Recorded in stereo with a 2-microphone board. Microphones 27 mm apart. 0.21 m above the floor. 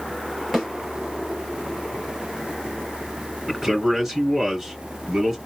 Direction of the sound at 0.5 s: Centre (ahead or behind).